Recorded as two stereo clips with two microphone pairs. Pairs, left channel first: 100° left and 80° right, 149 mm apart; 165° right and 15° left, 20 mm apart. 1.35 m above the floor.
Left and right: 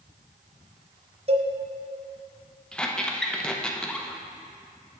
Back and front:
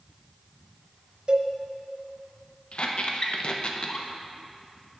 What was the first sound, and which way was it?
A cowbell, 35° right.